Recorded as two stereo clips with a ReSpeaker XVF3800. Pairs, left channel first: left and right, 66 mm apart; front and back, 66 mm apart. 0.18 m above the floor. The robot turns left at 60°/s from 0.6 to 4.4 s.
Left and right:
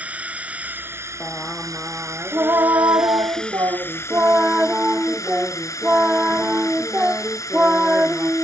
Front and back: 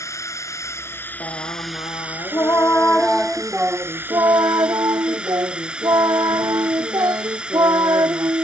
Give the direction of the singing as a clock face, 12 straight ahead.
11 o'clock.